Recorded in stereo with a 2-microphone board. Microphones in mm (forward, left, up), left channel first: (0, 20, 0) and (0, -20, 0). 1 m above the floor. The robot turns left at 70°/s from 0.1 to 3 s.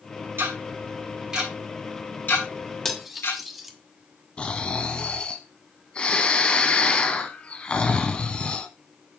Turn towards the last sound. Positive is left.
turn(degrees=25)  # may be behind; listen again after turning